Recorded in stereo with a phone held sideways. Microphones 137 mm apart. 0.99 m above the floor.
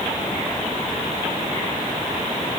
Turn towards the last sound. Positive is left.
No sound to turn to.